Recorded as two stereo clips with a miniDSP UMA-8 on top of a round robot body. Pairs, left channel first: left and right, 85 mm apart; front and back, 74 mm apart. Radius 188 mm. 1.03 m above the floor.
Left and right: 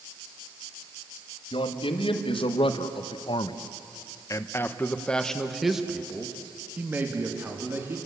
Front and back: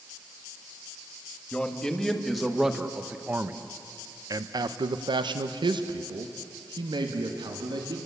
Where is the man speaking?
80° left, 1.9 m; by 8.0 s 155° right, 2.5 m.